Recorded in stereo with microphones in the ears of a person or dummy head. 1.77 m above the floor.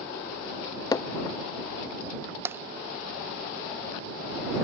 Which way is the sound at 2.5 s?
15° right (ahead or behind).